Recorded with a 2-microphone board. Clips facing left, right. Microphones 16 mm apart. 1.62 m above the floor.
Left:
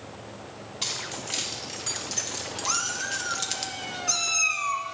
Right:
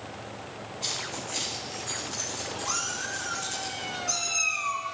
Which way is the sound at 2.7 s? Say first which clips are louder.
Left 4 dB; 25° left (ahead or behind).